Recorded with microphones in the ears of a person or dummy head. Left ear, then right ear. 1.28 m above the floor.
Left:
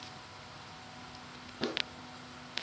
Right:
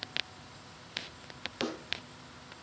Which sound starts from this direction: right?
A snare drum, at 1.6 s.